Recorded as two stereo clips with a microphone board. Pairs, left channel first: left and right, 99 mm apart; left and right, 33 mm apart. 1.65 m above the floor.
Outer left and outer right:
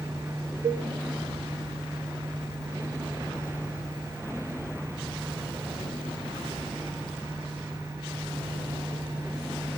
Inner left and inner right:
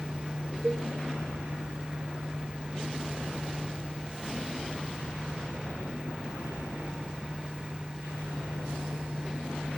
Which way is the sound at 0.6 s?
75° right (ahead or behind).